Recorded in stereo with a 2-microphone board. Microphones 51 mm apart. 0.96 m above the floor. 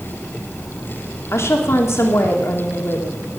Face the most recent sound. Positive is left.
turn(degrees=60)  # may be behind; listen again after turning